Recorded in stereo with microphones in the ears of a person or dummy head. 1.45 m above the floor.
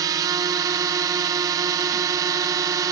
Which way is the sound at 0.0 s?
20° right (ahead or behind).